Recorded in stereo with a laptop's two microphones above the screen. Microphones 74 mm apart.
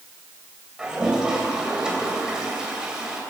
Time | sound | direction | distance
0.8 | a toilet flushing | 10° right (ahead or behind) | 2.5 m